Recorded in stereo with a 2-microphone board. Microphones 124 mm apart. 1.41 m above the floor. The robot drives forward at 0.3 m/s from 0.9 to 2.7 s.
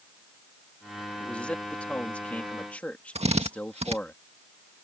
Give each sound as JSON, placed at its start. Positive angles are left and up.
{"t": 1.2, "sound": "a man speaking", "side_deg": 10}
{"t": 3.1, "sound": "a drill", "side_deg": -60}